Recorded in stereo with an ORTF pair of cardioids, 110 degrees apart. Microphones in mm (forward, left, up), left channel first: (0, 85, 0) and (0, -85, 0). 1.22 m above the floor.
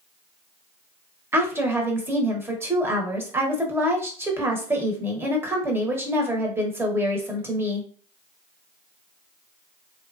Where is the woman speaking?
15° right, 1.0 m.